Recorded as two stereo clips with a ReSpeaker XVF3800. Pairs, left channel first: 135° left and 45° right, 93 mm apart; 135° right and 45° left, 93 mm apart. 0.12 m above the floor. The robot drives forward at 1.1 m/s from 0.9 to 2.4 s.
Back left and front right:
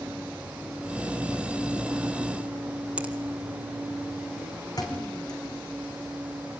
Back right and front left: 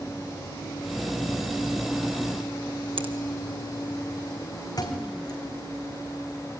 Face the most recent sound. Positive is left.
turn(degrees=180)